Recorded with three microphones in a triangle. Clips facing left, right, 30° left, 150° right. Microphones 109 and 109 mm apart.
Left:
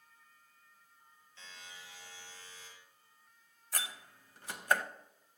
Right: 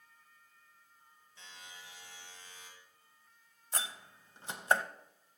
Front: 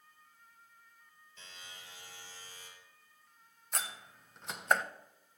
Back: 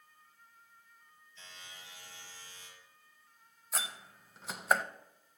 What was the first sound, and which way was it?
A buzzer, 15° right.